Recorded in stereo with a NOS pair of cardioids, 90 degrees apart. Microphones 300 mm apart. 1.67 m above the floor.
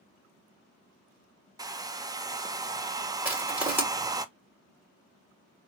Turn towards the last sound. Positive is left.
turn(degrees=-5)